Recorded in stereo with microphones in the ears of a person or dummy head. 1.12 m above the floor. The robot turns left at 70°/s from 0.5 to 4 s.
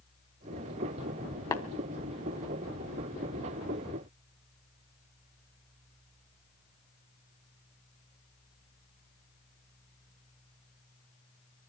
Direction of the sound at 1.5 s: 20° left (ahead or behind).